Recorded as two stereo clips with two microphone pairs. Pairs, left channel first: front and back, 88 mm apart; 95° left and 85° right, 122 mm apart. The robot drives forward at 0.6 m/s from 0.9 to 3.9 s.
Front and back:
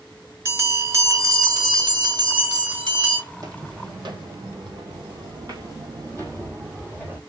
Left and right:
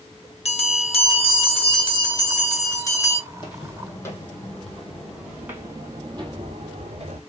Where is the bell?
120° left, 1.0 m; by 3.2 s 155° left, 2 m.